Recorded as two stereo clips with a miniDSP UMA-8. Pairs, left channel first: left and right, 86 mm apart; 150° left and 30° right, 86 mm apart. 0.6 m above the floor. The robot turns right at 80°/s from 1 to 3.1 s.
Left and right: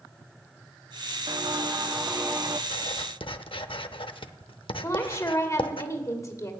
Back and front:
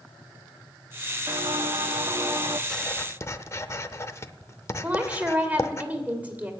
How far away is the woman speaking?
About 2.5 m.